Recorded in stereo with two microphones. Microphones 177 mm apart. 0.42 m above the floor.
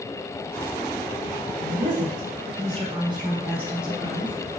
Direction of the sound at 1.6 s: 50° right (ahead or behind).